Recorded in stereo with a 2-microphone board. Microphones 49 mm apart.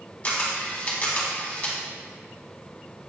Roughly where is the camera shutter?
Left.